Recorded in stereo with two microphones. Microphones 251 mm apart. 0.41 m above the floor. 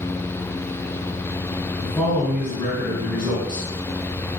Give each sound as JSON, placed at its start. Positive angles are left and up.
{"t": 1.8, "sound": "a man speaking", "side_deg": 20, "distance_m": 1.5}